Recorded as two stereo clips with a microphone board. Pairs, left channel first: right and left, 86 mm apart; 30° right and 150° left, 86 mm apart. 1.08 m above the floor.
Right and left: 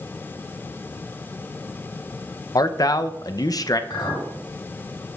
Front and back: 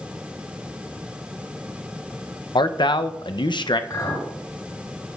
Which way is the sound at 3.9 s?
65° right.